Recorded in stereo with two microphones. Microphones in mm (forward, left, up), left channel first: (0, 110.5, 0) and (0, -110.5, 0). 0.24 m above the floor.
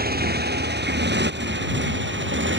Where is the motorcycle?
45° right (ahead or behind); by 2.6 s 60° right (ahead or behind).